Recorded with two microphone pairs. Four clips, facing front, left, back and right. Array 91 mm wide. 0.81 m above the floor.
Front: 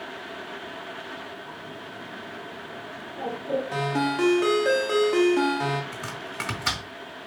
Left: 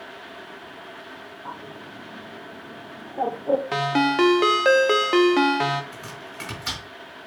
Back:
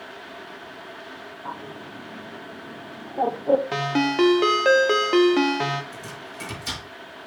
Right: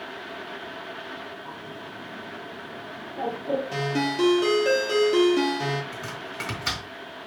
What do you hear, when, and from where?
1.4 s a bird: 150° left, 0.8 m
3.7 s a ringtone: 105° left, 0.9 m
5.9 s chopping: 10° right, 3 m